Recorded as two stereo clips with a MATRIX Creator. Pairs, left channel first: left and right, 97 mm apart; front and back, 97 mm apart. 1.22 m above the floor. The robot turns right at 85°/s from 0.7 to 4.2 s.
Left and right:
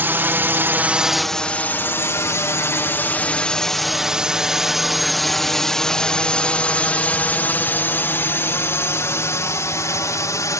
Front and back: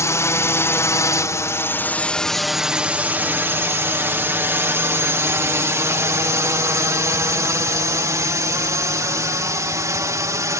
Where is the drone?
35° right; by 10.6 s 135° left.